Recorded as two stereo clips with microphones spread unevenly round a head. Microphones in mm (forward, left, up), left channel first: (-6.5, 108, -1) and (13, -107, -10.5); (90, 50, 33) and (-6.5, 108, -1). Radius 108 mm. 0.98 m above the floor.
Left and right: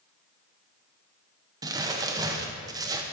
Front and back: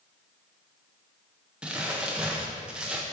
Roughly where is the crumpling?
Behind right.